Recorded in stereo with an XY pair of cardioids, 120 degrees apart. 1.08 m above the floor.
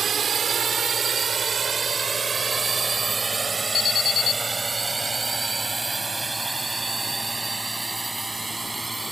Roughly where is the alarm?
Ahead left.